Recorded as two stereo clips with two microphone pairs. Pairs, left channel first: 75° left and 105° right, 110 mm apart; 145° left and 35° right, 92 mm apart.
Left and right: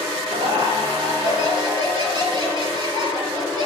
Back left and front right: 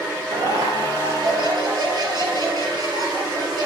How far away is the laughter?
About 5 m.